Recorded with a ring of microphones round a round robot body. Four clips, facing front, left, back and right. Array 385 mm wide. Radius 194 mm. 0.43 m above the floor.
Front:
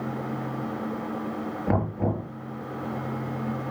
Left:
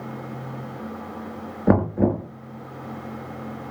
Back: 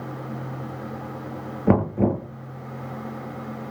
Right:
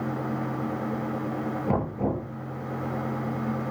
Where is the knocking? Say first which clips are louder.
Left 10 dB, back 7 dB; 125° left, 6.5 m.